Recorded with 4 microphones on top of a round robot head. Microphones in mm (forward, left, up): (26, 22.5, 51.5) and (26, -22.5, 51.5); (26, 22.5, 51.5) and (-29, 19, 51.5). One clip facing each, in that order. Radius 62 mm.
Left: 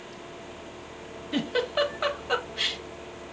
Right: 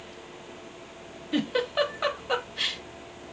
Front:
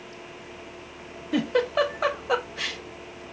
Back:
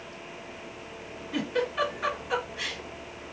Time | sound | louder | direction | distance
1.3 | a giggle | right 1 dB, front 6 dB | straight ahead | 0.6 m